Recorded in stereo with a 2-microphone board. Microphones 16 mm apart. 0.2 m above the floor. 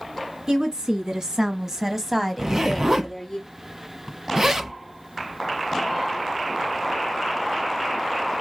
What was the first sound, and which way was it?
A woman speaking, 50° right (ahead or behind).